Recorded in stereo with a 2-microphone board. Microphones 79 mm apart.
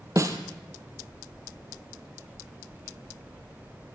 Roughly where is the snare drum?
Right.